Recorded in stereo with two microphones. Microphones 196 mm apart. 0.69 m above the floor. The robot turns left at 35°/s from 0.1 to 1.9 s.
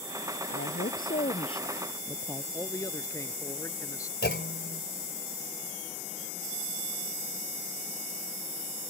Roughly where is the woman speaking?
Ahead left.